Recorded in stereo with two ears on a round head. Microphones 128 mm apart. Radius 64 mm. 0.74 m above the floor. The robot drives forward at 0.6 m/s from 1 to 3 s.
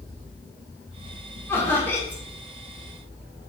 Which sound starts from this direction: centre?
Laughter, at 1.5 s.